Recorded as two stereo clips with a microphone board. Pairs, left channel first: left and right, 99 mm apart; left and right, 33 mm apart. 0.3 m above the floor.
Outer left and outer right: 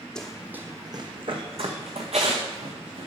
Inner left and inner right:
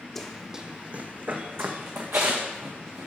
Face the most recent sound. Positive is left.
turn(degrees=-85)